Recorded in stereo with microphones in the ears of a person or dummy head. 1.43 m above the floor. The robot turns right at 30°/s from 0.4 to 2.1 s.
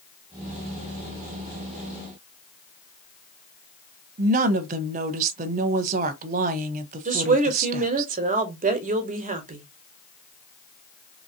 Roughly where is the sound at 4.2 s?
Right.